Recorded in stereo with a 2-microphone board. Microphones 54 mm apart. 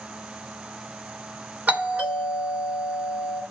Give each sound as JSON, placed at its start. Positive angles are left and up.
{"t": 1.7, "sound": "a doorbell", "side_deg": -30, "distance_m": 2.0}